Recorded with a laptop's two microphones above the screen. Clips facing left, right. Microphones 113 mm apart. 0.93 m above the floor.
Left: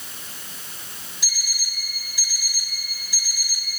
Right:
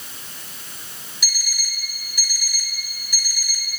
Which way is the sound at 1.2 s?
25° left (ahead or behind).